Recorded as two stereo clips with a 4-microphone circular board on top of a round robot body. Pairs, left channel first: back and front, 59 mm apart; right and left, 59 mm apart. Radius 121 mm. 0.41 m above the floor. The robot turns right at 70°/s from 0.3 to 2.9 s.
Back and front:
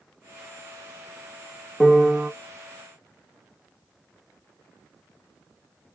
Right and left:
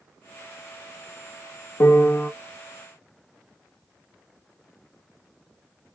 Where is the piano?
100° right, 0.7 m; by 2.3 s 65° right, 0.7 m.